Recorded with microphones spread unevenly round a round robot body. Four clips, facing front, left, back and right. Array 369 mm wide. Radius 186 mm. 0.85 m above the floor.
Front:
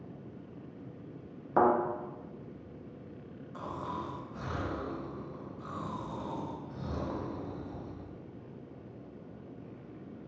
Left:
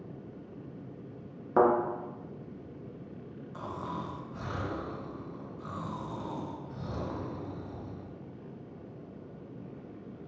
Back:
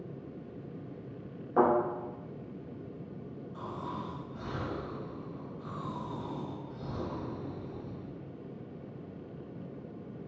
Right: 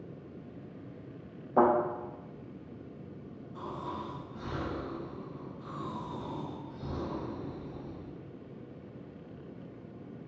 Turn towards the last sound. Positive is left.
turn(degrees=65)